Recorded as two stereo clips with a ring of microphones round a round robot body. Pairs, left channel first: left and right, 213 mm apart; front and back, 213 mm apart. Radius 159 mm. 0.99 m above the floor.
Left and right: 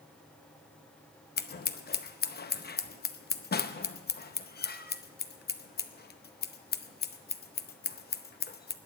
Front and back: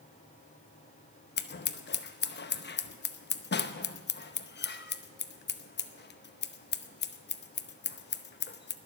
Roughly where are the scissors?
Ahead left.